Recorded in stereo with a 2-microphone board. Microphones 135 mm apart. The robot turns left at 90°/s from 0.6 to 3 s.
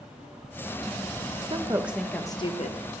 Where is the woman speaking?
135° right, 0.6 m; by 2.8 s 110° left, 0.6 m.